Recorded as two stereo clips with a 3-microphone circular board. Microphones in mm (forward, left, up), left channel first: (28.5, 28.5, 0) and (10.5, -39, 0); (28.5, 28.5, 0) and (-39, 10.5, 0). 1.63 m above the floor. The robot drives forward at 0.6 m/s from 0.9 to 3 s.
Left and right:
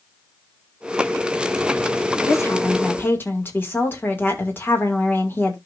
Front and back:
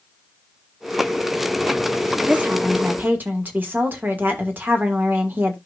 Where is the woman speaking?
120° left, 2.0 m; by 5.6 s 130° left, 2 m.